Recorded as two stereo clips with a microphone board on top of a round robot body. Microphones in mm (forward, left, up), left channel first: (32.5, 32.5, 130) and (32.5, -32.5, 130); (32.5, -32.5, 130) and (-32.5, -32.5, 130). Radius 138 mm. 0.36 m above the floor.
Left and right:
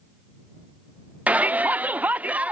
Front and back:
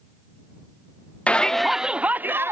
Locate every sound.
1.3 s a shout: 50° right; by 2.5 s 150° right